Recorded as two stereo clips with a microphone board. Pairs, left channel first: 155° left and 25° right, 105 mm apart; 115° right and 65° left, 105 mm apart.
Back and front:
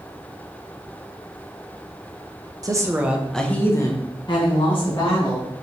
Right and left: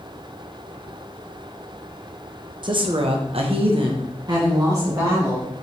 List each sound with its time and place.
2.6 s a woman speaking: 30° left, 0.8 m; by 5.5 s 130° left, 1.8 m